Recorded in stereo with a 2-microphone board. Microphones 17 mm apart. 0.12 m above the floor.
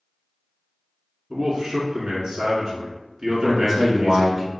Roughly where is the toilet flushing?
No toilet flushing in this recording.